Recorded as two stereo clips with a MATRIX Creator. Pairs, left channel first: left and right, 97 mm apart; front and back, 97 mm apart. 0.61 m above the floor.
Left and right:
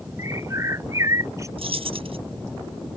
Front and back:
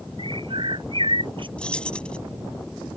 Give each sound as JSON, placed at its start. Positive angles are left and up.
{"t": 0.2, "sound": "a bird", "azimuth_deg": -150}
{"t": 1.6, "sound": "keys jangling", "azimuth_deg": -80}